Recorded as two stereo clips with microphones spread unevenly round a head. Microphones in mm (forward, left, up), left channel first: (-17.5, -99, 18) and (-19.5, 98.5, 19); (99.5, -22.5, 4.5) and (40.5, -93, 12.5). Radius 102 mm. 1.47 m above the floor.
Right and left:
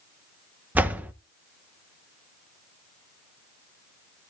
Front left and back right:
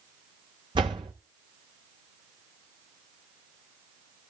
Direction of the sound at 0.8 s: 170° left.